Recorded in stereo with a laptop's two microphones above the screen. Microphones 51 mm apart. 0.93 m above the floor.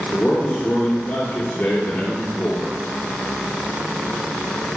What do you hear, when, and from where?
0.1 s a man speaking: 35° left (ahead or behind), 3 m